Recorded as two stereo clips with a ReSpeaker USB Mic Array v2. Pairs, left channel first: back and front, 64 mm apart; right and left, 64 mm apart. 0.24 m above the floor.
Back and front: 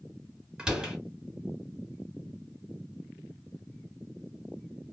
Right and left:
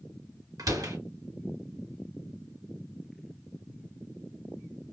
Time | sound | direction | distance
0.6 | a door slam | 80° left | 2.5 m